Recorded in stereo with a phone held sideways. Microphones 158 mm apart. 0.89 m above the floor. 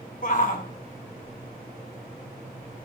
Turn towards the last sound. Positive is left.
turn(degrees=60)  # may be behind; listen again after turning